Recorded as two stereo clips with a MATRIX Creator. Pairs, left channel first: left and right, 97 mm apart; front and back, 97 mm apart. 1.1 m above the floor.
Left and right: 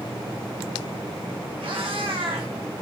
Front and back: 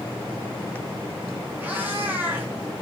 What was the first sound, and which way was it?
A cat meowing, 110° right.